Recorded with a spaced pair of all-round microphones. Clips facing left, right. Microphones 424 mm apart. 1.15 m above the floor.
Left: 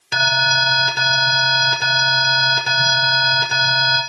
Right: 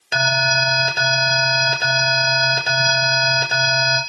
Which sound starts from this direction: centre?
An alarm, at 0.1 s.